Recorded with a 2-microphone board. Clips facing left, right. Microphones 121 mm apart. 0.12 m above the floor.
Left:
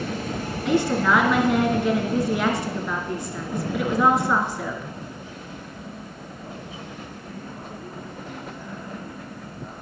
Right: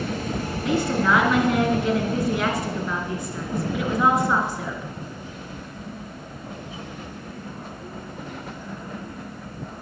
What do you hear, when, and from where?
0.7 s a woman speaking: centre (ahead or behind), 2 m